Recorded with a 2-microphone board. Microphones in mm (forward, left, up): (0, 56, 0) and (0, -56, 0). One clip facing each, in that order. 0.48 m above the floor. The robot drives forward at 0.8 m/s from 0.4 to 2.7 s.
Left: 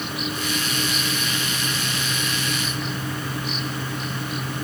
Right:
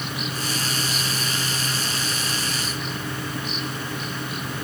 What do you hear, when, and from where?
Only background noise.